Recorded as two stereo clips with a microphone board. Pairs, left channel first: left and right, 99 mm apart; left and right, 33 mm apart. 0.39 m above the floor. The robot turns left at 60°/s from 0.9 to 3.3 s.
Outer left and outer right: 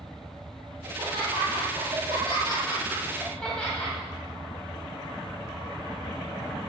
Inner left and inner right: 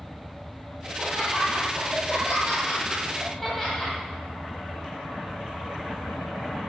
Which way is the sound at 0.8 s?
45° right.